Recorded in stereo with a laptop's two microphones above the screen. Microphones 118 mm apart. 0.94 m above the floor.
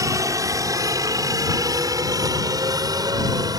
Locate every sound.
0.0 s a helicopter: 25° right (ahead or behind); by 3.6 s 30° right (ahead or behind)